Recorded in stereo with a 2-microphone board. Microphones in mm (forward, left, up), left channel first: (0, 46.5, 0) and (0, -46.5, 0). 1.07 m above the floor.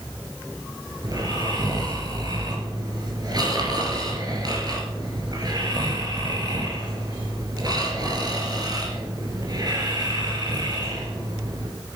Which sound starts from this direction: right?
Snoring, at 1.0 s.